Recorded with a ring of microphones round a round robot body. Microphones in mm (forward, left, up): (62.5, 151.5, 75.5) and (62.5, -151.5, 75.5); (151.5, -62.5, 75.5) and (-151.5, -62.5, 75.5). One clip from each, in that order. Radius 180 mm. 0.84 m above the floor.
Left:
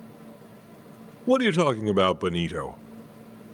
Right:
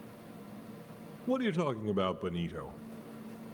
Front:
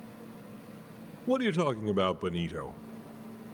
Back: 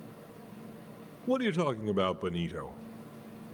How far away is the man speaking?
About 0.5 m.